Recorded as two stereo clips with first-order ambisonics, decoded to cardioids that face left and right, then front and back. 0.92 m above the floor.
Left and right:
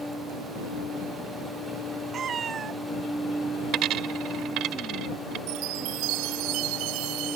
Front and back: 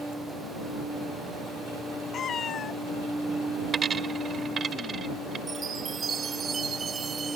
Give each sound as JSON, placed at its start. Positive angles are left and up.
{"t": 2.1, "sound": "a cat meowing", "azimuth_deg": -45}
{"t": 3.7, "sound": "a dropped coin", "azimuth_deg": -115}
{"t": 5.5, "sound": "a chime", "azimuth_deg": -110}